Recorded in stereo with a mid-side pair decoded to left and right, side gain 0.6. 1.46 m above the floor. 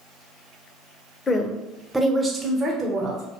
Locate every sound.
1.3 s a woman speaking: 30° left, 0.7 m; by 3.2 s 50° right, 1.1 m